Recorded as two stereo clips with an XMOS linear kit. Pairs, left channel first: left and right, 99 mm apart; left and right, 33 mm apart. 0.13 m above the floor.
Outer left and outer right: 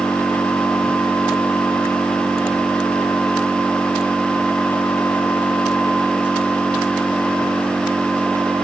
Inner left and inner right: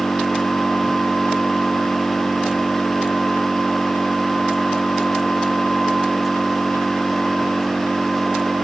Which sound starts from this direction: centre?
An engine running, at 0.0 s.